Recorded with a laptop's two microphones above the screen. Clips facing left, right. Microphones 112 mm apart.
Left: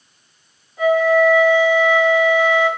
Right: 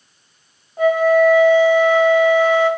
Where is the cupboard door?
I don't hear a cupboard door.